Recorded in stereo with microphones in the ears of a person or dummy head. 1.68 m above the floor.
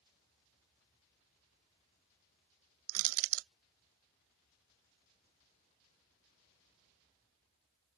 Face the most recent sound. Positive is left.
turn(degrees=-70)  # may be behind; listen again after turning